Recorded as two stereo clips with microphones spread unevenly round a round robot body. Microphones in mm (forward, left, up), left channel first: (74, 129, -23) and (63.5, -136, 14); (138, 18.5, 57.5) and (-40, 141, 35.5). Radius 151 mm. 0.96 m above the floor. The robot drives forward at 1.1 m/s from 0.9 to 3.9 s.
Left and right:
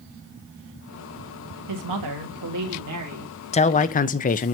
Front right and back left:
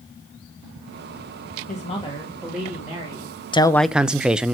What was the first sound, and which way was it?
A woman speaking, 95° right.